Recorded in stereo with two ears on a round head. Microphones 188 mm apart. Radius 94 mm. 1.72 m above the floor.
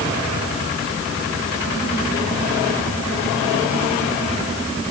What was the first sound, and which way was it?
Only background noise.